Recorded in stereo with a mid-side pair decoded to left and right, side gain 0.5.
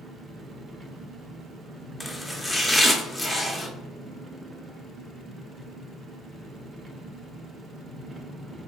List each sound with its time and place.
0.0 s an engine running: 40° right, 0.7 m
2.0 s chopping: 10° left, 0.7 m